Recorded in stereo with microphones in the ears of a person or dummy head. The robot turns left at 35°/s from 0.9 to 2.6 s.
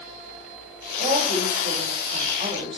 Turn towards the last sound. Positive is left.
turn(degrees=-155)